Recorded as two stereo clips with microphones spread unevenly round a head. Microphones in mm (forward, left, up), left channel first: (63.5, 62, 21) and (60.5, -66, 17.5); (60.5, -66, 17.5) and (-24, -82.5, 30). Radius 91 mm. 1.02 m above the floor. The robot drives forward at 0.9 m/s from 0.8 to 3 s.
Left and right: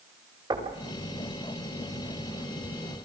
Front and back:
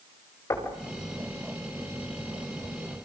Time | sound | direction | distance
0.5 | knocking | 35° right | 5.5 m